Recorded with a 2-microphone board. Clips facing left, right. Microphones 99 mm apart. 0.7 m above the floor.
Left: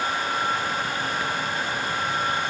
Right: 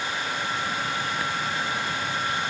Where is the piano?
No piano in this recording.